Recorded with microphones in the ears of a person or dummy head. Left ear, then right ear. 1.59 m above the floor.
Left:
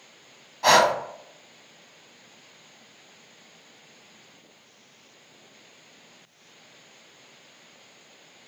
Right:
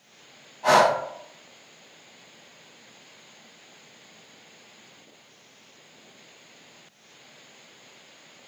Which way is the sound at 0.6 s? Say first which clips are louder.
Even; 60° left (ahead or behind).